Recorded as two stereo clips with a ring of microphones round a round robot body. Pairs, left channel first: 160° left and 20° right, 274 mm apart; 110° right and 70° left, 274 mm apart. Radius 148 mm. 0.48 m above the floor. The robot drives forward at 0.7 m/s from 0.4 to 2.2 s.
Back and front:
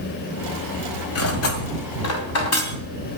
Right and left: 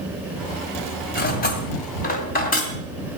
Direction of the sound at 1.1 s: 170° right.